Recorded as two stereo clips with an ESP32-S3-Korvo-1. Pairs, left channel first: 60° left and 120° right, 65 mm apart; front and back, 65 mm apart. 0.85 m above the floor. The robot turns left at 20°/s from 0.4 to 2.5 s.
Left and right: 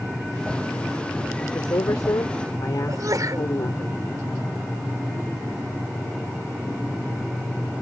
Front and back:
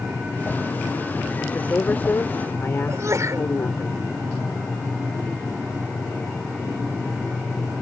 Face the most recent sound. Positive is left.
turn(degrees=-145)